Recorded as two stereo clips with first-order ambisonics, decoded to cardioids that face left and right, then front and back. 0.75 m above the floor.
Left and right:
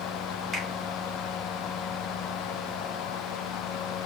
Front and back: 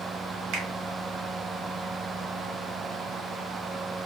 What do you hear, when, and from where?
0.5 s a finger snap: 175° right, 1.0 m